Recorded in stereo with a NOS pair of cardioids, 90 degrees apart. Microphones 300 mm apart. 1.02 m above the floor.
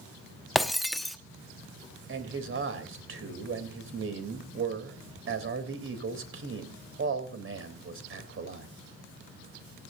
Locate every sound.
0.6 s breaking glass: straight ahead, 1.1 m
2.1 s a man speaking: 45° right, 3.5 m